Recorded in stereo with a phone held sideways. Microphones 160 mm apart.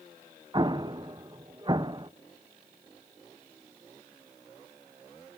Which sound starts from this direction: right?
An explosion, at 0.5 s.